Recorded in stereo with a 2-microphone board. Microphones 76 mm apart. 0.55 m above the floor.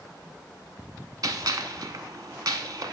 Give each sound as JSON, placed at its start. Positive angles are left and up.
{"t": 1.2, "sound": "a gunshot", "side_deg": -60, "distance_m": 0.8}